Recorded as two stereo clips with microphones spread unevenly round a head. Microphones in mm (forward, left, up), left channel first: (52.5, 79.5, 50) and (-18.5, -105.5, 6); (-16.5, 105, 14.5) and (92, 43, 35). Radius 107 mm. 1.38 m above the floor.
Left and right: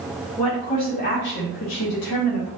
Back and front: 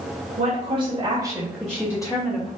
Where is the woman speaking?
5° right, 1.4 m; by 2.5 s 100° left, 1.3 m.